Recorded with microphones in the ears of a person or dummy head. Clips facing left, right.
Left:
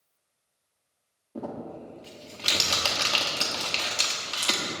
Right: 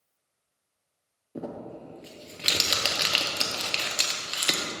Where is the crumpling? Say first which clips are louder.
Left 1 dB; 15° right (ahead or behind), 1.1 m.